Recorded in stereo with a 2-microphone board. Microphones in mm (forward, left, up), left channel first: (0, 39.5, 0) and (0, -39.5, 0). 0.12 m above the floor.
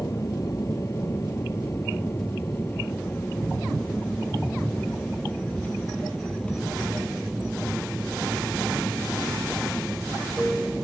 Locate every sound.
0.0 s an aircraft: 40° left (ahead or behind); by 10.8 s 5° right (ahead or behind)